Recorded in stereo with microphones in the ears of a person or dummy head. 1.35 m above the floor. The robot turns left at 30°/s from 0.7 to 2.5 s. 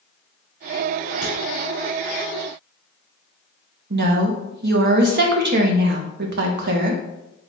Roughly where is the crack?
Centre.